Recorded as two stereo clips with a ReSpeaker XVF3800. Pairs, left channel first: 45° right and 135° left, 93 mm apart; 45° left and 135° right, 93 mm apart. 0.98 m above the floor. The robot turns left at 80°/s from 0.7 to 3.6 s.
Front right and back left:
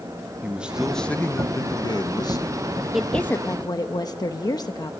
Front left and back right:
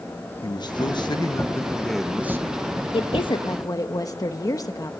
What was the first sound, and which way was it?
A man speaking, 60° left.